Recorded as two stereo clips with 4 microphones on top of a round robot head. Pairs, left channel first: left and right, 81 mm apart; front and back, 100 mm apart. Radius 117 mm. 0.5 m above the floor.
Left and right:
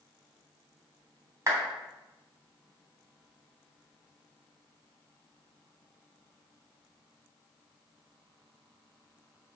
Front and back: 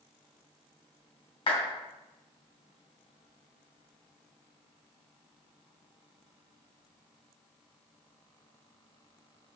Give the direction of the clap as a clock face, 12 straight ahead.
1 o'clock.